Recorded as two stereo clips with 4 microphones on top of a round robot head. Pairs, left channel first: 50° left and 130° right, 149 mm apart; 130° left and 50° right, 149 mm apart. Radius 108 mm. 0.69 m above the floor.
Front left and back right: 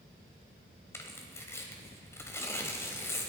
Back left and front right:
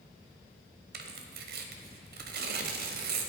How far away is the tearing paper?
About 1.0 m.